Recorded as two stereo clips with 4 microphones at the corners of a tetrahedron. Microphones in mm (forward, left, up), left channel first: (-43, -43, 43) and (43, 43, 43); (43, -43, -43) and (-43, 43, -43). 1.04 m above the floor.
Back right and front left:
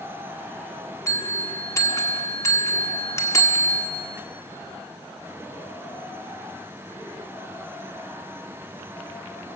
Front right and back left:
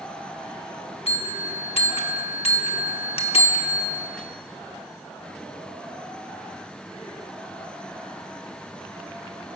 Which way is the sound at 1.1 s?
75° right.